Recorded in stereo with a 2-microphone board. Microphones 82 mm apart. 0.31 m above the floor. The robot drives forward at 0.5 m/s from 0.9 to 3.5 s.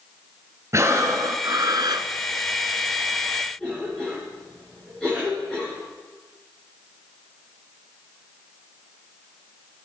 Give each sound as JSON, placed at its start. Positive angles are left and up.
{"t": 0.7, "sound": "breathing", "side_deg": -40, "distance_m": 1.1}
{"t": 3.6, "sound": "a cough", "side_deg": 10, "distance_m": 4.5}